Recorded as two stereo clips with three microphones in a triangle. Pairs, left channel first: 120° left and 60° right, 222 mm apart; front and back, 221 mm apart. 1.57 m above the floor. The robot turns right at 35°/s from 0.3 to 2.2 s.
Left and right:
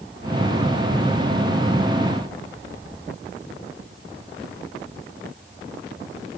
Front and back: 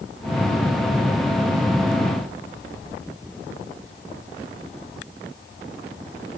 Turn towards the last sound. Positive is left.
No sound to turn to.